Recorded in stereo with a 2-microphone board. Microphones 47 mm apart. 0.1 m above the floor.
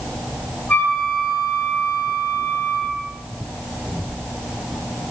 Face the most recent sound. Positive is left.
turn(degrees=40)  # may be behind; listen again after turning